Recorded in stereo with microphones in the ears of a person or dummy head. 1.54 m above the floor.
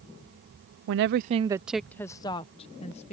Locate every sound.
0.9 s a woman speaking: 70° right (ahead or behind); by 3.1 s 35° left (ahead or behind)